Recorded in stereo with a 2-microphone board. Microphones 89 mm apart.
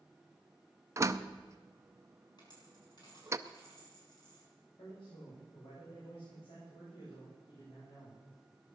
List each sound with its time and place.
1.0 s a door slam: 35° right (ahead or behind), 0.6 m
2.4 s a dropped coin: 50° left (ahead or behind), 6 m
4.8 s a man speaking: 80° left, 8.5 m